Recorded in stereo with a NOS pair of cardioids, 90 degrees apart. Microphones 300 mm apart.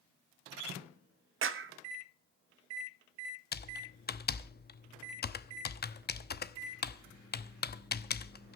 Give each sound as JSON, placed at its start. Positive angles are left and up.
{"t": 1.4, "sound": "a clap", "azimuth_deg": -45, "distance_m": 1.5}
{"t": 3.5, "sound": "typing on a keyboard", "azimuth_deg": 35, "distance_m": 1.0}